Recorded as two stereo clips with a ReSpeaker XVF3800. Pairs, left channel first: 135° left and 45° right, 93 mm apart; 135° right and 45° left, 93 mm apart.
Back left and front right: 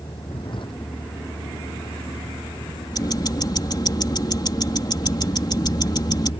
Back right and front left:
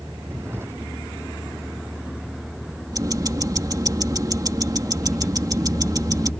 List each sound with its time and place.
0.0 s a vehicle: 105° left; by 6.4 s 145° left
2.9 s ticking: 90° left